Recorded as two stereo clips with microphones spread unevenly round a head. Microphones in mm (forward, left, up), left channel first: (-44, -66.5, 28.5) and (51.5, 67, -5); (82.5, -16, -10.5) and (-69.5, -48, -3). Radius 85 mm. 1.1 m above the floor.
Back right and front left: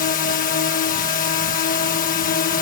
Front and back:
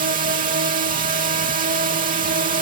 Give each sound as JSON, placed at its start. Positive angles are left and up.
{"t": 0.0, "sound": "a drone", "azimuth_deg": -160}